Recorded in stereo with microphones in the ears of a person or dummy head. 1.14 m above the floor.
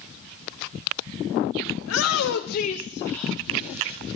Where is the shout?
75° left (ahead or behind), 0.7 m; by 4.0 s 10° right (ahead or behind), 1.2 m.